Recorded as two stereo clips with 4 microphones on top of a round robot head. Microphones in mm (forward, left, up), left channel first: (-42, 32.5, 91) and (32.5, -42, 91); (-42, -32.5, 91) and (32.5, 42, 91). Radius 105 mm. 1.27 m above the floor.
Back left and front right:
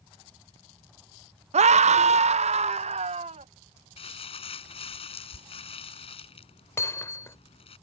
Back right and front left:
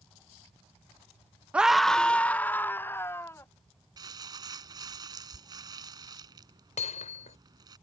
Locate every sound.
1.5 s a scream: 35° right; by 3.5 s 65° right
4.0 s crumpling: 100° left
6.8 s hammering: 155° right